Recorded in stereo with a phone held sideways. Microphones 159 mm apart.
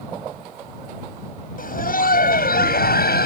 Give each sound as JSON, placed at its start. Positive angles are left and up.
{"t": 1.6, "sound": "laughter", "side_deg": 60}